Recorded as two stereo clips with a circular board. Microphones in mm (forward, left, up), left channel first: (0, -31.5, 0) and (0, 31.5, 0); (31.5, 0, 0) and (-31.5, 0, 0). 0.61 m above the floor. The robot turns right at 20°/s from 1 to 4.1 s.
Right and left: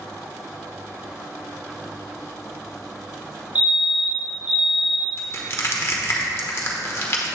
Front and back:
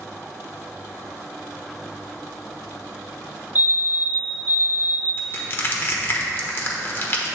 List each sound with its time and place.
3.5 s a fire alarm: 140° left, 1.9 m; by 5.2 s 150° left, 1.9 m
5.2 s crushing: 45° right, 1.3 m